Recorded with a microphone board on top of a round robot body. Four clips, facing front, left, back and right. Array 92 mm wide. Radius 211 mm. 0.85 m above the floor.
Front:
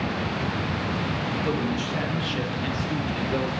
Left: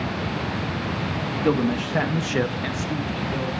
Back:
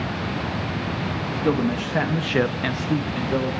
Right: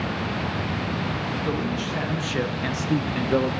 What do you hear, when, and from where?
1.4 s a man speaking: 130° left, 1.8 m; by 3.5 s 100° right, 1.3 m